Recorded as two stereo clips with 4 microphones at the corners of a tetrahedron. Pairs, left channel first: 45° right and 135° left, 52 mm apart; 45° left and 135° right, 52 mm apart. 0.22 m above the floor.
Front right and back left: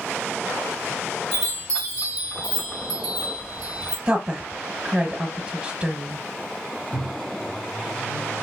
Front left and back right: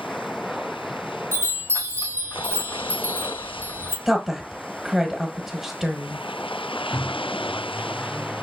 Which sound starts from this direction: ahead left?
A chime, at 1.3 s.